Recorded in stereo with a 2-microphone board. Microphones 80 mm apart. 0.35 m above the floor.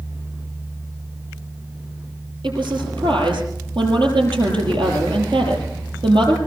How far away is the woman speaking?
About 7 m.